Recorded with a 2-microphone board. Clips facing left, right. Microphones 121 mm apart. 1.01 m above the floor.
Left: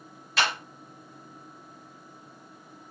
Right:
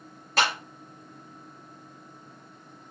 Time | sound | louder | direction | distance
0.4 | a clap | right 2 dB | 45° right (ahead or behind) | 3.5 m